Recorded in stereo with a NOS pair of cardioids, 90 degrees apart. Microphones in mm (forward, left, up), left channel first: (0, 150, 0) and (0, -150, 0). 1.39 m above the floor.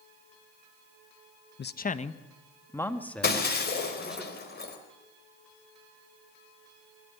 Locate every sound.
1.6 s a man speaking: 35° left, 1.1 m; by 4.2 s 5° right, 3.5 m
3.2 s breaking glass: 35° left, 3.5 m